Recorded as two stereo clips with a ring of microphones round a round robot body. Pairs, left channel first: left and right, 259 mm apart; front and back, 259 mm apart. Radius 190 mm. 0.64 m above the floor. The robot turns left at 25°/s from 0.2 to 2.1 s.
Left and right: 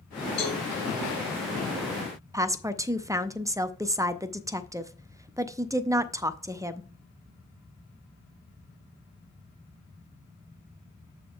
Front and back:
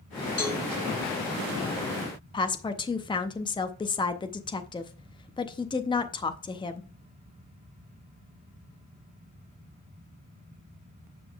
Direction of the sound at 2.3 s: 35° right.